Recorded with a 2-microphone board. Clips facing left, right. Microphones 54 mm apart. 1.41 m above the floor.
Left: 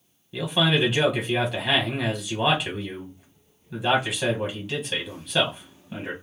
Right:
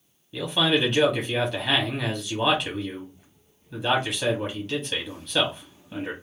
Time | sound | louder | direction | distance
0.3 | a man speaking | even | 10° left (ahead or behind) | 0.7 m